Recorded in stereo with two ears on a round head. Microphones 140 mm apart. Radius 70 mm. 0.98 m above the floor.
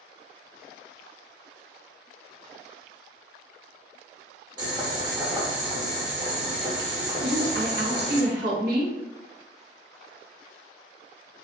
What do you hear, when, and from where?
4.6 s boiling: 25° right (ahead or behind), 0.8 m
7.2 s a woman speaking: 65° right (ahead or behind), 0.9 m